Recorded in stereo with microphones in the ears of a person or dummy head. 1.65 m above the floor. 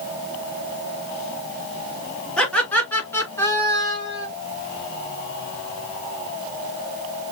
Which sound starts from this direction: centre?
Laughter, at 2.4 s.